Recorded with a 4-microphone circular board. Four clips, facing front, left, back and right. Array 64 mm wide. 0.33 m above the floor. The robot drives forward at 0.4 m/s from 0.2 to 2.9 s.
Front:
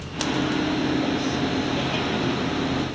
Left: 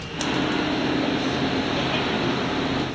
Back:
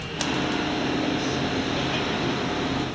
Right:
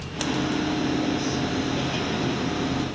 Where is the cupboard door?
I don't hear a cupboard door.